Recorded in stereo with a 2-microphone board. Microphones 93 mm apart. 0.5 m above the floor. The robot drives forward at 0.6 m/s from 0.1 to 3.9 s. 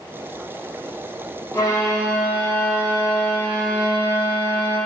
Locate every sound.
1.5 s a violin: 40° left (ahead or behind), 1.4 m; by 4.8 s 20° left (ahead or behind), 2.5 m